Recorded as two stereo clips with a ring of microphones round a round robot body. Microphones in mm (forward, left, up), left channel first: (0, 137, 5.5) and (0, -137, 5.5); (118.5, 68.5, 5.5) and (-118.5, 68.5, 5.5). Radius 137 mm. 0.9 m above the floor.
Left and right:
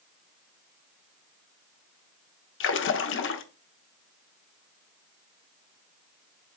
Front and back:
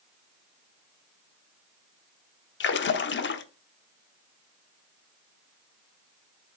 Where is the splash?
45° left, 0.9 m.